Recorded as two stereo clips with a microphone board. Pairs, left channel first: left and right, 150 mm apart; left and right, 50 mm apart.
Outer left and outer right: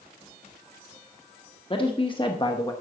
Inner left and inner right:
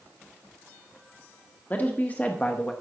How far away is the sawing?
I don't hear sawing.